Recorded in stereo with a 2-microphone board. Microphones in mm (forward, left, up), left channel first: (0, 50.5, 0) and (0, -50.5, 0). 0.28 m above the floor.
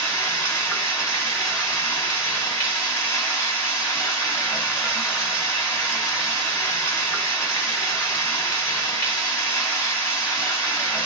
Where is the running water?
25° left (ahead or behind), 1.3 m.